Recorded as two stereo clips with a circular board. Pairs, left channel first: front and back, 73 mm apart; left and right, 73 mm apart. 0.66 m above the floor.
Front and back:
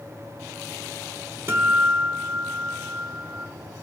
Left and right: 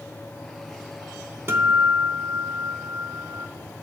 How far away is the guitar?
About 0.9 m.